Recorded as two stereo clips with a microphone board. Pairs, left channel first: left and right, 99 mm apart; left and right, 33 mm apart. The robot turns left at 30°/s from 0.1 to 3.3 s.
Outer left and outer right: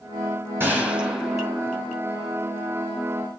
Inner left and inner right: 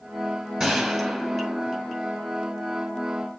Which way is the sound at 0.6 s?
160° right.